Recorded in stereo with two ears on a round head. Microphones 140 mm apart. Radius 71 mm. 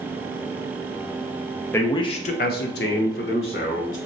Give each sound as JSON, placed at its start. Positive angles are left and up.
{"t": 1.7, "sound": "a man speaking", "side_deg": 15, "distance_m": 0.6}